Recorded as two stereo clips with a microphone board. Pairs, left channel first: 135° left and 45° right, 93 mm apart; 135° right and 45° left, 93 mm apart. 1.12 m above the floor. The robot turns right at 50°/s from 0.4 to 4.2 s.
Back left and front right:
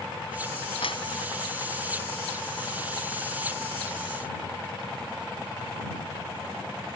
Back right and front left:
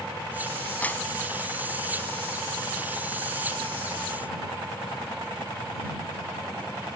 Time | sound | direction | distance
0.8 | a clap | 150° left | ?